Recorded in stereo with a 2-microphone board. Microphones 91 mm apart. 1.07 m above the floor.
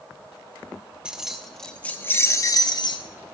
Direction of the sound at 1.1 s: 10° right (ahead or behind).